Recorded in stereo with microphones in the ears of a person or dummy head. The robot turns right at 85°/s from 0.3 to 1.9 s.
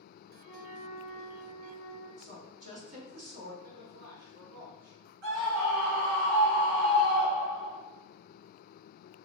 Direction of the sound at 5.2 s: 65° right (ahead or behind).